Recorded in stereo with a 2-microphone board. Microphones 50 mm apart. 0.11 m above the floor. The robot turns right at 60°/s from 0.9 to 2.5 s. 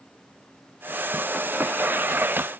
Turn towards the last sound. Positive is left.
No sound to turn to.